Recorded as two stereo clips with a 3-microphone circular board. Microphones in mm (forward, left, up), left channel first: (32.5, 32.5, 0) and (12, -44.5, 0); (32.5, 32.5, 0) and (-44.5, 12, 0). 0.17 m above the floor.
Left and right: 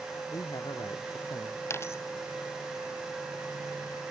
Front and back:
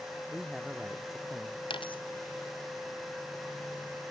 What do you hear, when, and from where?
0.3 s a man speaking: 110° left
1.7 s a dropped coin: 15° left